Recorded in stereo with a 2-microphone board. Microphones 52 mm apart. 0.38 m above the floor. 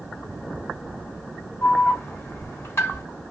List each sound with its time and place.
1.6 s an alarm: 55° left (ahead or behind), 3.5 m